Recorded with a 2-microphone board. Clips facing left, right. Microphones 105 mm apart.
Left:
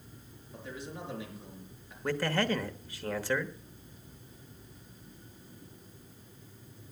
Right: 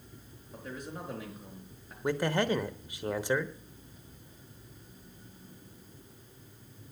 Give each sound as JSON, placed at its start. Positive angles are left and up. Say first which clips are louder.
{"t": 0.5, "sound": "a man speaking", "louder": "right 1 dB", "side_deg": -45, "distance_m": 5.0}
{"t": 2.0, "sound": "a man speaking", "louder": "right 1 dB", "side_deg": -15, "distance_m": 1.0}